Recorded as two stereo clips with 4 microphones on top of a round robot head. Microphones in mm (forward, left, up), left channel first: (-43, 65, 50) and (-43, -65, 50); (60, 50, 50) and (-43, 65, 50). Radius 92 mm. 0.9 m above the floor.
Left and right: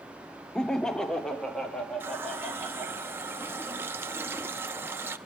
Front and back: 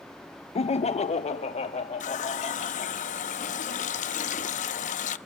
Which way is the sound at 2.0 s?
10° right.